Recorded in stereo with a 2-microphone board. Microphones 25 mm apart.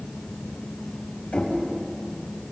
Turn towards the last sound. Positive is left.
turn(degrees=85)